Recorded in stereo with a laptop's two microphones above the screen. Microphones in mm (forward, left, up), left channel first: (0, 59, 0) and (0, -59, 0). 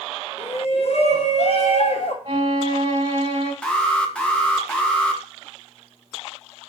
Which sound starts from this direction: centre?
An alarm, at 3.6 s.